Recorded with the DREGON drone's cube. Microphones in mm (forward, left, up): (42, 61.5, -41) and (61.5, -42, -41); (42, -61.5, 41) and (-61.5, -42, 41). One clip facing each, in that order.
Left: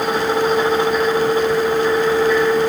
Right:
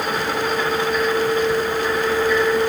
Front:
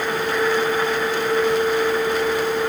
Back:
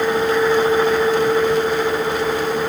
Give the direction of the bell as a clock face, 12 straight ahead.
No bell in this recording.